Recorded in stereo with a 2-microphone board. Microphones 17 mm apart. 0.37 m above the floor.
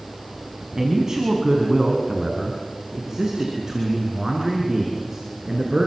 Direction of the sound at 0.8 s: 30° right (ahead or behind).